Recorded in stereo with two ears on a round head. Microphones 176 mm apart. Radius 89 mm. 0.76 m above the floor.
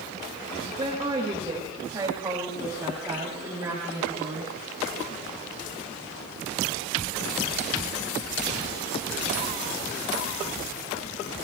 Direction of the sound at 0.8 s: 25° right (ahead or behind).